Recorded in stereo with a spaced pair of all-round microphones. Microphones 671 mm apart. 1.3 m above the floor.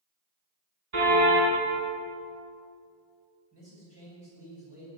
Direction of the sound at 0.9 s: 60° right (ahead or behind).